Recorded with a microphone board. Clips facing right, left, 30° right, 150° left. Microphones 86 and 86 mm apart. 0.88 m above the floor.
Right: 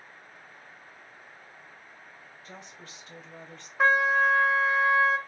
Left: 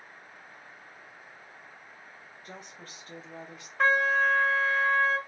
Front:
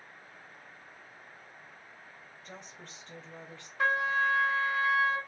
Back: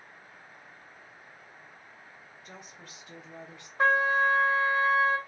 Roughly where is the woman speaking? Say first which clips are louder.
Left 1 dB, front 1 dB; ahead left.